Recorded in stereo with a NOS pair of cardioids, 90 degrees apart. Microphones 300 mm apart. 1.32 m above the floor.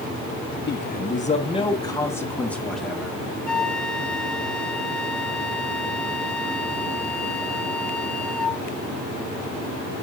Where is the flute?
5° left, 1.9 m.